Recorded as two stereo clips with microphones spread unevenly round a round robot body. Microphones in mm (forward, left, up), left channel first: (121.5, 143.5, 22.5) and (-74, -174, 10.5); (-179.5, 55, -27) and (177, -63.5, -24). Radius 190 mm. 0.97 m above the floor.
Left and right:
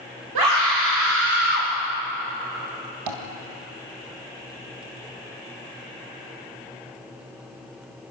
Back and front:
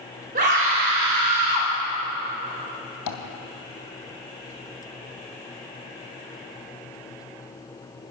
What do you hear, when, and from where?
0.3 s a scream: 85° right, 3 m; by 1.7 s 50° right, 3.5 m
3.1 s tapping: 155° right, 2 m